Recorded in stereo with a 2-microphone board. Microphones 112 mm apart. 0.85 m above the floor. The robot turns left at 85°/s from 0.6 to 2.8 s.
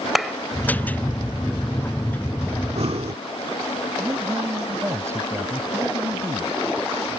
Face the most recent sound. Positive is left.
turn(degrees=-25)  # may be behind; listen again after turning